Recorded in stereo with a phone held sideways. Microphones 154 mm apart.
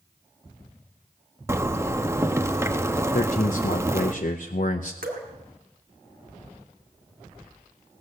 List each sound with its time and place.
1.5 s a zipper: 15° right (ahead or behind), 0.7 m
3.1 s a man speaking: 55° left (ahead or behind), 0.6 m
5.0 s dripping: 70° right (ahead or behind), 1.6 m